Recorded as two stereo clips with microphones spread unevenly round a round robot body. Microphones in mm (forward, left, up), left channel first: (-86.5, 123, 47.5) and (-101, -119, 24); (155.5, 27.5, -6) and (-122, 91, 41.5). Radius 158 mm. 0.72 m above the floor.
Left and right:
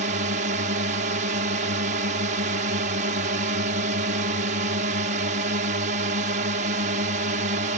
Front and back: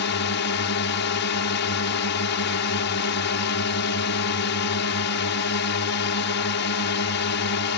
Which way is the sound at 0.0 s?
45° right.